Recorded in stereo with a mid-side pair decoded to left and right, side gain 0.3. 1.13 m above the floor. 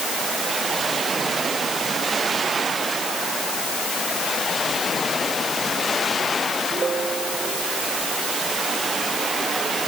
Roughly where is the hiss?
I don't hear a hiss.